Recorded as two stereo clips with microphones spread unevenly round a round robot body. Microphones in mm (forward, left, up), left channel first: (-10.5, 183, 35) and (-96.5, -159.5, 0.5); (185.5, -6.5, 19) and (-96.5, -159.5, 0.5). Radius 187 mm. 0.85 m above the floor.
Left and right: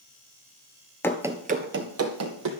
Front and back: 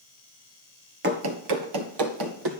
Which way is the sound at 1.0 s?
150° left.